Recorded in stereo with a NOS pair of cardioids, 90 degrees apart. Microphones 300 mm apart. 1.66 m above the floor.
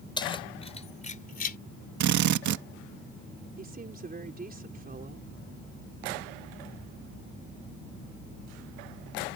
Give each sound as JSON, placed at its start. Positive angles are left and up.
{"t": 0.2, "sound": "keys jangling", "azimuth_deg": 15}
{"t": 2.0, "sound": "a drill", "azimuth_deg": -70}
{"t": 3.6, "sound": "a woman speaking", "azimuth_deg": -30}